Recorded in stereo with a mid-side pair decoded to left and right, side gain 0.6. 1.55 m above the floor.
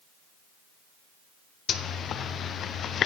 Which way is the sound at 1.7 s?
45° left.